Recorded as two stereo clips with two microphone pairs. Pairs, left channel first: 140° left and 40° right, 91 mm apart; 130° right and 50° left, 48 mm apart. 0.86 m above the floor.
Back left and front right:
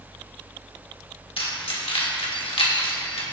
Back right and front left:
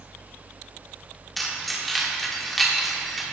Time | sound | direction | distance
1.4 | keys jangling | 140° left | 1.6 m